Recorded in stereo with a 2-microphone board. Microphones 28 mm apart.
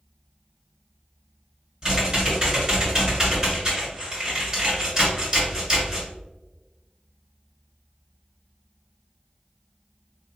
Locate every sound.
1.8 s typing on a keyboard: 25° right (ahead or behind), 1.7 m